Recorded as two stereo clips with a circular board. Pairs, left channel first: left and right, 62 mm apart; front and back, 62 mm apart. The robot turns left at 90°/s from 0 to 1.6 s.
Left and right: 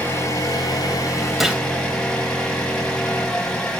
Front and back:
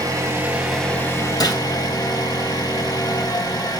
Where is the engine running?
155° left, 3 m; by 3.8 s 10° left, 3 m.